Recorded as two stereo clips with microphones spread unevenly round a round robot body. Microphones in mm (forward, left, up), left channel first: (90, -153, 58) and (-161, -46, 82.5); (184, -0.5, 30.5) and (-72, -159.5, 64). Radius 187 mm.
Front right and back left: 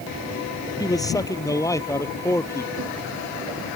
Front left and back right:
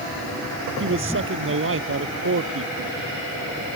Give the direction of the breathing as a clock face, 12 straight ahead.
I don't hear breathing.